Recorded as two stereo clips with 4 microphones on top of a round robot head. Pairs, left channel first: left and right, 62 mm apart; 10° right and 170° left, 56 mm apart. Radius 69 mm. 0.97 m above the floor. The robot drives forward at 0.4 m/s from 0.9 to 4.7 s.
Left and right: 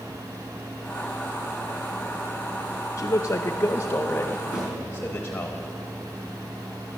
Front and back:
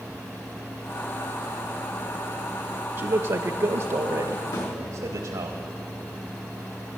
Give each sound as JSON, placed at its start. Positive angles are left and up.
{"t": 3.0, "sound": "a man speaking", "azimuth_deg": 135, "distance_m": 0.6}
{"t": 4.5, "sound": "a snare drum", "azimuth_deg": -10, "distance_m": 4.0}